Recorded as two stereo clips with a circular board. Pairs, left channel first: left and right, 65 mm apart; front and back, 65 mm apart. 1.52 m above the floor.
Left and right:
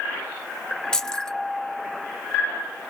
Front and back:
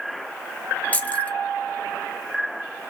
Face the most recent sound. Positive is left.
turn(degrees=25)